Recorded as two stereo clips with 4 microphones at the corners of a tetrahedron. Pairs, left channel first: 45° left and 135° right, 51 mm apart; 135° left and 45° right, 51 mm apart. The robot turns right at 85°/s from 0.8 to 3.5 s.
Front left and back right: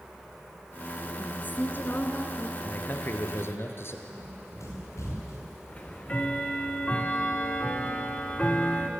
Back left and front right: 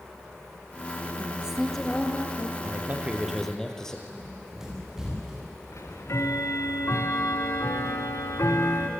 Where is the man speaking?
15° right, 3 m; by 4.0 s 60° left, 3 m.